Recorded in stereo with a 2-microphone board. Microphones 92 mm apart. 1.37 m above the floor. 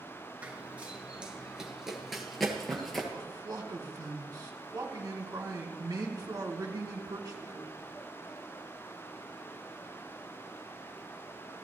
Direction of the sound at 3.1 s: 40° right (ahead or behind).